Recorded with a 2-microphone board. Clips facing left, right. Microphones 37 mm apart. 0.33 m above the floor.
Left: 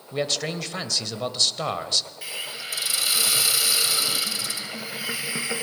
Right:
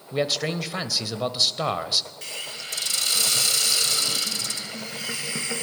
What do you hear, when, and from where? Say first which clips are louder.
0.1 s a man speaking: right 2 dB; 5° right (ahead or behind), 1.2 m
2.2 s a hiss: left 2 dB; 10° left (ahead or behind), 1.0 m